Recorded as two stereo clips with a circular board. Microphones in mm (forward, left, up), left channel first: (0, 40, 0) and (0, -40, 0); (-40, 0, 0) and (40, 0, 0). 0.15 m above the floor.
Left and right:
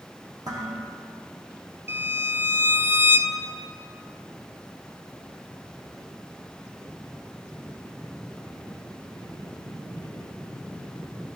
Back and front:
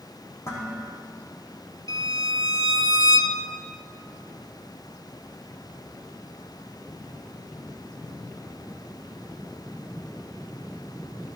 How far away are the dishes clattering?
About 4 m.